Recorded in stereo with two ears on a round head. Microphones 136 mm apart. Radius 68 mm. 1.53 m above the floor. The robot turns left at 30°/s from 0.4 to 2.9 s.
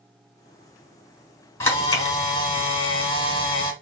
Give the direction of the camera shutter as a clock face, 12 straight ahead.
7 o'clock.